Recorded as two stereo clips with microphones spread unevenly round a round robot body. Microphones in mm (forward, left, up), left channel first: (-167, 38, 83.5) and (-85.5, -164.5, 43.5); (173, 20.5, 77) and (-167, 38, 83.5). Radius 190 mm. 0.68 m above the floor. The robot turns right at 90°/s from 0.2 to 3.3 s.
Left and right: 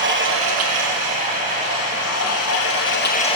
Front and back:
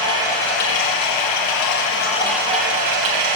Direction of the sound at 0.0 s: 105° right.